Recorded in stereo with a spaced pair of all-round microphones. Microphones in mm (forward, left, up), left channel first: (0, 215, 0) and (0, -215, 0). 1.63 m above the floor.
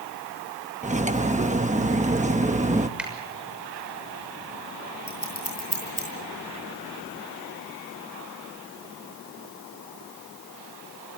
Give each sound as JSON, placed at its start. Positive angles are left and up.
{"t": 0.8, "sound": "cutlery clinking", "side_deg": -15, "distance_m": 1.0}
{"t": 3.0, "sound": "a finger snap", "side_deg": 0, "distance_m": 6.5}
{"t": 5.1, "sound": "scissors", "side_deg": 65, "distance_m": 9.0}